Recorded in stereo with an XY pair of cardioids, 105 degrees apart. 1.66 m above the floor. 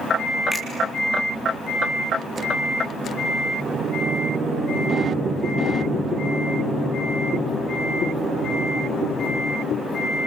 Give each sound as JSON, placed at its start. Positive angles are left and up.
{"t": 0.5, "sound": "a finger snap", "azimuth_deg": 5, "distance_m": 5.5}